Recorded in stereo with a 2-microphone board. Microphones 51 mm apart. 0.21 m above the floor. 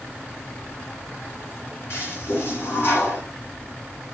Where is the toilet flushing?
55° left (ahead or behind), 2.5 m.